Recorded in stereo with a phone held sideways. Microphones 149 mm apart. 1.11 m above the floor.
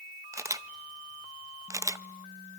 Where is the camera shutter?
20° right (ahead or behind), 0.7 m.